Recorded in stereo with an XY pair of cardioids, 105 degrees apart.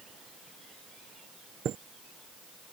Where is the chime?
60° right.